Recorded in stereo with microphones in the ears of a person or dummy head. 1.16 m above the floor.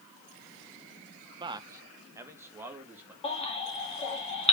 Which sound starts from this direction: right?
A man speaking, at 1.4 s.